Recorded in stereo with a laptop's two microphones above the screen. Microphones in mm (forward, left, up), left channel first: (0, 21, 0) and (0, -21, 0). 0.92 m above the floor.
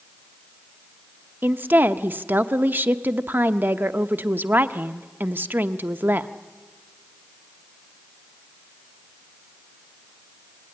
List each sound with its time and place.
1.4 s a woman speaking: 55° right (ahead or behind), 0.9 m